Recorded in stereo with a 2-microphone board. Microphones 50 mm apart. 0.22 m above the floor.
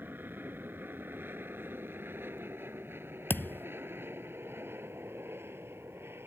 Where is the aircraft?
45° right (ahead or behind); by 6.3 s 55° right (ahead or behind).